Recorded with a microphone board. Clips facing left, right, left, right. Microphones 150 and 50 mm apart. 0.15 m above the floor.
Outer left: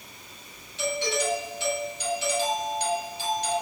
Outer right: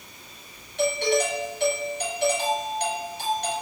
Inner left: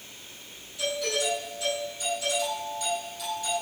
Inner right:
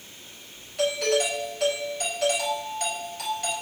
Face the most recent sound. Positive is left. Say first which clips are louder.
# outer right 5 dB, inner right 5 dB
turn(degrees=-60)  # may be behind; listen again after turning